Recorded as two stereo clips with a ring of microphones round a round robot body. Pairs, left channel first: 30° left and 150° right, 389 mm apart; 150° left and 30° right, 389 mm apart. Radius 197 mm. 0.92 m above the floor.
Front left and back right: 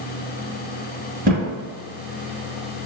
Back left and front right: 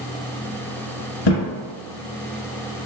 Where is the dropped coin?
No dropped coin in this recording.